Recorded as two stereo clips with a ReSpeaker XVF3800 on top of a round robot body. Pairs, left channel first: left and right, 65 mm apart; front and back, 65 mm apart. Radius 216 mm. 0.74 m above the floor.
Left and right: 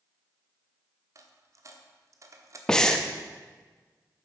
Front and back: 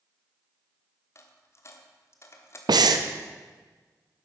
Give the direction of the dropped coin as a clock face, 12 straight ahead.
2 o'clock.